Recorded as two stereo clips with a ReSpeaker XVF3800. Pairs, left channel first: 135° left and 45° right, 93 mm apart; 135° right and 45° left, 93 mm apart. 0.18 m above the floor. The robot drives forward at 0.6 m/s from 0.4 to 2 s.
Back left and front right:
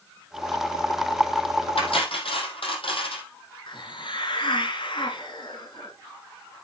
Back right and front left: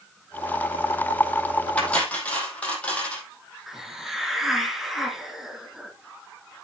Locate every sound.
1.8 s cutlery clinking: 150° left, 3.5 m
3.7 s a hiss: 130° left, 2.5 m